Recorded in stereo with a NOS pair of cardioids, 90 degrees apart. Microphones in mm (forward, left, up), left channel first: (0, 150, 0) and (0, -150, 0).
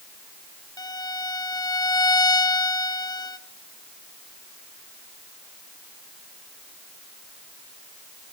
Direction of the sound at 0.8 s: 15° left.